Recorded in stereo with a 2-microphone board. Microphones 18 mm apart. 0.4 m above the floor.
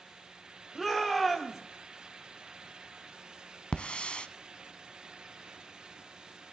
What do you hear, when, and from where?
0.8 s a shout: centre (ahead or behind), 1.4 m
3.7 s a hiss: 80° left, 0.6 m